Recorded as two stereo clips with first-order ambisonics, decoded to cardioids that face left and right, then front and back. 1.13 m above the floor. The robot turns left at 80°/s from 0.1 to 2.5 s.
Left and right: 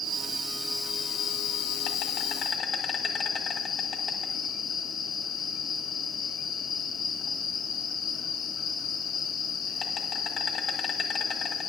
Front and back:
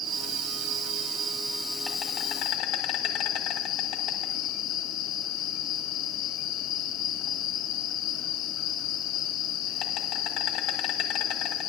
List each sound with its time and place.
0.0 s an insect: 140° right, 1.6 m; by 11.7 s 30° left, 1.6 m